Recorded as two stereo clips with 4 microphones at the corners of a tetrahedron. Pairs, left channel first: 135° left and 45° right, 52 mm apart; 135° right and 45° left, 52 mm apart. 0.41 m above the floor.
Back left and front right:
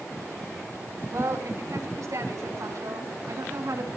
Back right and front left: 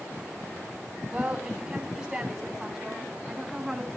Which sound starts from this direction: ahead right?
A woman speaking, at 1.1 s.